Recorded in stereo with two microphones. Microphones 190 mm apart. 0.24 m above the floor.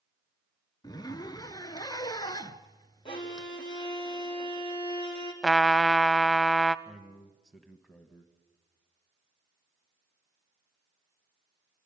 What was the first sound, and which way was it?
A zipper, 20° left (ahead or behind).